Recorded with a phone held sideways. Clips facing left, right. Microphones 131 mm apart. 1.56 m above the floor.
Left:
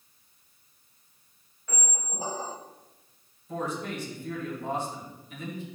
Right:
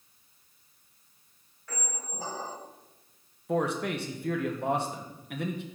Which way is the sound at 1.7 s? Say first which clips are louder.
Left 2 dB; 20° left (ahead or behind).